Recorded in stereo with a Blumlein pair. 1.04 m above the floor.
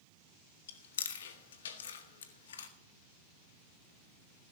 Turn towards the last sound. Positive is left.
turn(degrees=60)